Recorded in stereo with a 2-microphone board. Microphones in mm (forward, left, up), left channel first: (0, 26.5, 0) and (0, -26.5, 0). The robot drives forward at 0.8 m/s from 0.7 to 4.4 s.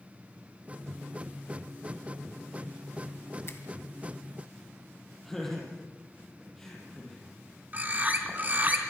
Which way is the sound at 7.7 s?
30° right (ahead or behind).